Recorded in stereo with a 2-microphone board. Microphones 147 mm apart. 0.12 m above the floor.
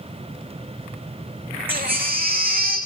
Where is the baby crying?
80° right, 3 m.